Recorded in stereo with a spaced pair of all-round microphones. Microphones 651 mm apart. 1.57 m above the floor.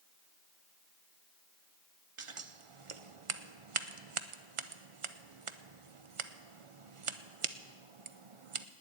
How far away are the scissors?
About 0.7 m.